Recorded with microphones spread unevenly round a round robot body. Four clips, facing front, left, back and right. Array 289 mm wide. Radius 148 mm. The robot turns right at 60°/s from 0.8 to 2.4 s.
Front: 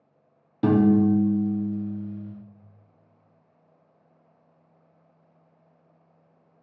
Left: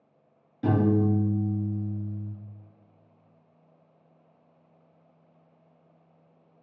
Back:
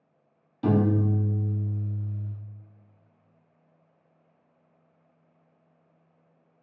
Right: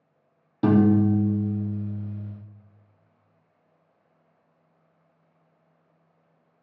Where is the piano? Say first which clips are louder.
Right 5 dB, front 5 dB; 45° right, 0.7 m; by 2.3 s 45° left, 0.7 m.